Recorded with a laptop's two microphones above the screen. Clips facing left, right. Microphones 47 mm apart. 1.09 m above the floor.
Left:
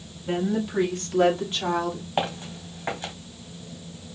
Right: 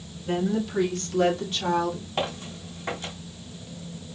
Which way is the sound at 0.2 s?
20° left (ahead or behind).